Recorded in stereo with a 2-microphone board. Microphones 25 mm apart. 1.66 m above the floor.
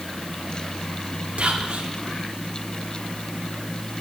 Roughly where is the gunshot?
No gunshot in this recording.